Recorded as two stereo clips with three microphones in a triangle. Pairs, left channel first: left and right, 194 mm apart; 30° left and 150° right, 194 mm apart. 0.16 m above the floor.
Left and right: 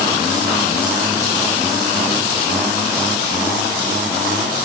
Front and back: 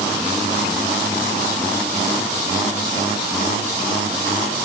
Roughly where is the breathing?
No breathing in this recording.